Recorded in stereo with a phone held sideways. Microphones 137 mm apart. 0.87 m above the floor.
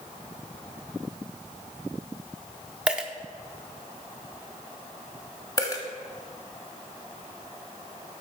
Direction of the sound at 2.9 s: 5° right (ahead or behind).